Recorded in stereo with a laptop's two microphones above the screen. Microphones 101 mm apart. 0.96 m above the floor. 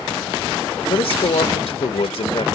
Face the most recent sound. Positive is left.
turn(degrees=80)